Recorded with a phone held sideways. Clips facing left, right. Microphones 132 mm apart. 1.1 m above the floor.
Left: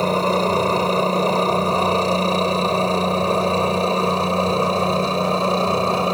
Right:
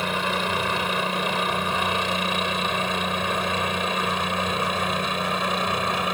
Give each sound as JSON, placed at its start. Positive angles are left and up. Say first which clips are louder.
{"t": 0.0, "sound": "a helicopter", "louder": "left 8 dB", "side_deg": 35}